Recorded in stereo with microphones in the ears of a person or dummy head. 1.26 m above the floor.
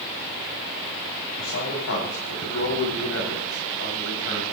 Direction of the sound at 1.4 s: 85° left.